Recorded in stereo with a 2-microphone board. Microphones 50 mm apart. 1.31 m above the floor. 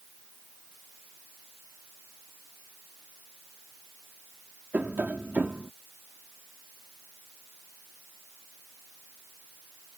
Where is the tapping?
35° right (ahead or behind).